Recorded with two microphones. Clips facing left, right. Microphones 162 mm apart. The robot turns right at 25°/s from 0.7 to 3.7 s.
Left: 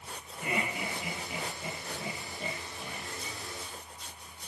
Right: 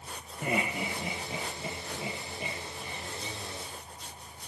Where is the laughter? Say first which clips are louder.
Right 3 dB; 45° right (ahead or behind), 4.5 m; by 3.1 s 10° left (ahead or behind), 4.5 m.